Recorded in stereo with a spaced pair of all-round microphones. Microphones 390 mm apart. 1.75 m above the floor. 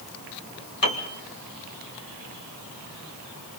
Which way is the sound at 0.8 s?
55° left (ahead or behind).